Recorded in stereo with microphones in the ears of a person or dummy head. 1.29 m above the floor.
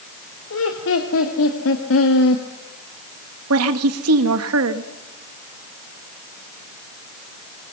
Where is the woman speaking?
80° right, 2.0 m.